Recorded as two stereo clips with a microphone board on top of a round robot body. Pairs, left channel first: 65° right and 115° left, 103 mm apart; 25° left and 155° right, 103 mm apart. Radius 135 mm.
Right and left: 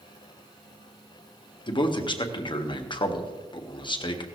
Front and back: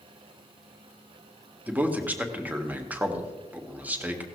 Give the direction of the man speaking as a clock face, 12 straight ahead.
3 o'clock.